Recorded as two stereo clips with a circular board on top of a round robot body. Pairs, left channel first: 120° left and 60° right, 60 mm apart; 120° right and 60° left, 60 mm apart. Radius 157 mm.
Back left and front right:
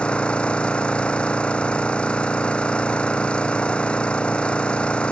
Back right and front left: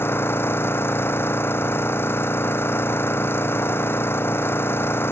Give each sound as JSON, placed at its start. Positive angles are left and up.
{"t": 0.0, "sound": "an engine running", "azimuth_deg": -170}